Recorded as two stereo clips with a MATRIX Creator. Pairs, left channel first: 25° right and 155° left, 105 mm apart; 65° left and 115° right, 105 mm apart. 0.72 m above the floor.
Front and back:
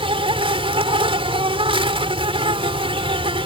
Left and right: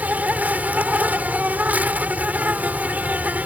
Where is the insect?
175° left.